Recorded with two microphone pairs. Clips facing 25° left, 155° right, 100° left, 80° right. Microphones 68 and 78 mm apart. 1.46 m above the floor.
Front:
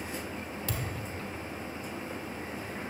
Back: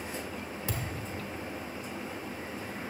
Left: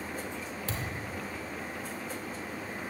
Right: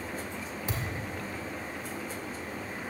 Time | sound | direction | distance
0.7 | a thud | 135° right | 1.2 m